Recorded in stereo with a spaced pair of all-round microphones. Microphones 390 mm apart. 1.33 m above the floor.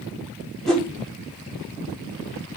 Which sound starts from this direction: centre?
A whoosh, at 0.7 s.